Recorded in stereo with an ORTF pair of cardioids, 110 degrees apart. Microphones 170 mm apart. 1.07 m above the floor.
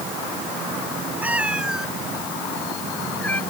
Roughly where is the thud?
I don't hear a thud.